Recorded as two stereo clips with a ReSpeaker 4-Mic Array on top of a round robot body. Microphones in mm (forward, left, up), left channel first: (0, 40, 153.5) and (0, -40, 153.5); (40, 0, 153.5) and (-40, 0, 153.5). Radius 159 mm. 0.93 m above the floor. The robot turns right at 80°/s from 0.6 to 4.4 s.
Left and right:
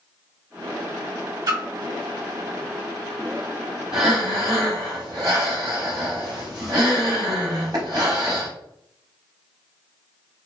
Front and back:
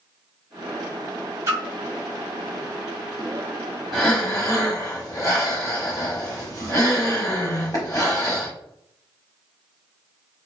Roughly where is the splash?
Behind right.